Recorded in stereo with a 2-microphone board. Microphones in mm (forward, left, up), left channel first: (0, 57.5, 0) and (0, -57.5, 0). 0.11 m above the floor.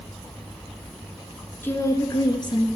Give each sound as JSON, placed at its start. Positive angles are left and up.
{"t": 1.6, "sound": "a woman speaking", "side_deg": 20, "distance_m": 1.2}